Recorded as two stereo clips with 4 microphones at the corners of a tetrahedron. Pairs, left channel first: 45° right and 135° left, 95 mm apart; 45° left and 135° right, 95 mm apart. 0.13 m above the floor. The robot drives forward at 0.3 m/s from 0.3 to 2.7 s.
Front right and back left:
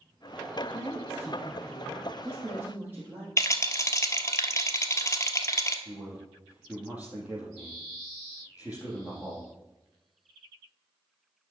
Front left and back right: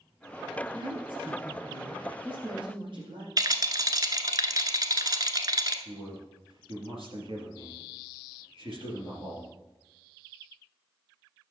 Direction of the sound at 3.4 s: 95° right.